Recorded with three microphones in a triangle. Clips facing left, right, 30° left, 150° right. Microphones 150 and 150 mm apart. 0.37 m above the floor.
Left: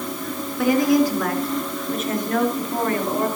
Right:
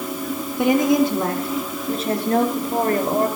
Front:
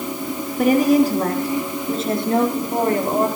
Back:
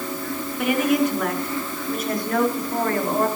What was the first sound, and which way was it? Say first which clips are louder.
A woman speaking: even, front 6 dB; 20° right.